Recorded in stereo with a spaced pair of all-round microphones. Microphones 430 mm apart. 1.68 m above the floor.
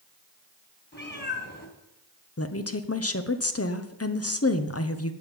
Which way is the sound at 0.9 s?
25° left (ahead or behind).